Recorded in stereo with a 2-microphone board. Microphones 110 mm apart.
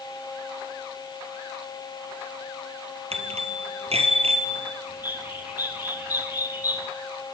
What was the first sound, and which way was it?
A bicycle bell, 65° right (ahead or behind).